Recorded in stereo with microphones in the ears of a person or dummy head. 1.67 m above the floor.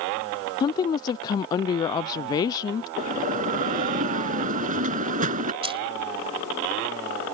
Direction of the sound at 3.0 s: 45° right (ahead or behind).